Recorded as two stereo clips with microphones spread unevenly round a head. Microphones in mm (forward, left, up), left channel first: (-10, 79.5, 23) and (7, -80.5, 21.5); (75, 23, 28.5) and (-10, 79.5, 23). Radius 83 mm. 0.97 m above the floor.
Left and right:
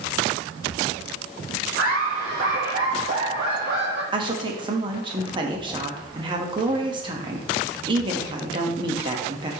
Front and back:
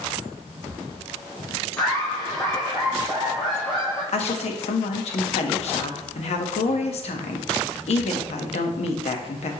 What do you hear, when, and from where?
1.8 s laughter: 115° right, 1.2 m
4.1 s a woman speaking: 20° right, 1.3 m